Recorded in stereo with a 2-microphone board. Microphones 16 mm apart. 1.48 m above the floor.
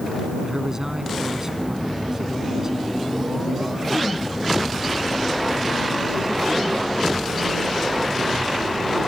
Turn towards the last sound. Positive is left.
turn(degrees=-30)  # may be behind; listen again after turning